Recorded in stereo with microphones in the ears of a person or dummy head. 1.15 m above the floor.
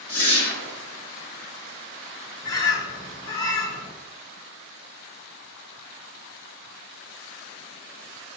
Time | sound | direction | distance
0.1 | a whoosh | 25° left (ahead or behind) | 1.0 m
2.4 | a bird | 20° left (ahead or behind) | 0.5 m